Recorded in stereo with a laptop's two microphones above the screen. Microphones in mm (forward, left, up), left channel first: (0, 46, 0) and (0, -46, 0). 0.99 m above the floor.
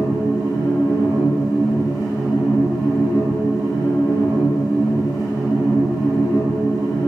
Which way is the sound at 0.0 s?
35° left (ahead or behind).